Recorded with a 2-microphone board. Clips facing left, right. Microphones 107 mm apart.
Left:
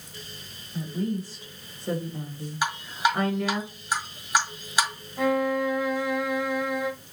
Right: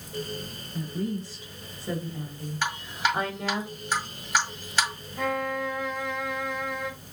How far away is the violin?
About 0.5 m.